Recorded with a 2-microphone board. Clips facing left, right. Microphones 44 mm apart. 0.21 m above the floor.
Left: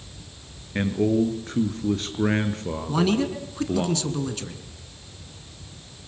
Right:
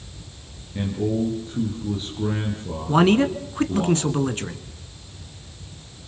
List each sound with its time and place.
0.8 s a man speaking: 65° left (ahead or behind), 4.5 m
2.9 s a man speaking: 35° right (ahead or behind), 2.5 m